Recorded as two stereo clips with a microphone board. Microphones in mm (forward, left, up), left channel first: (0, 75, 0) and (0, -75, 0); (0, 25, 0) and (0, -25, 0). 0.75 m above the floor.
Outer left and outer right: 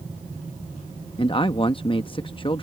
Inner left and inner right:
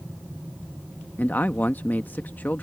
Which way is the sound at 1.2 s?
35° left (ahead or behind).